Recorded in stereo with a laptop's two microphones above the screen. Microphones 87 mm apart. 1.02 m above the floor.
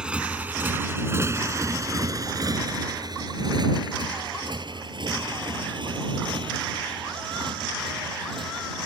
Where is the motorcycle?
10° right (ahead or behind); by 8.9 s 75° right (ahead or behind).